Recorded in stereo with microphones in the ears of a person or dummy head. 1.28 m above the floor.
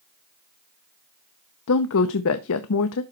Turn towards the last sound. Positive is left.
turn(degrees=70)  # may be behind; listen again after turning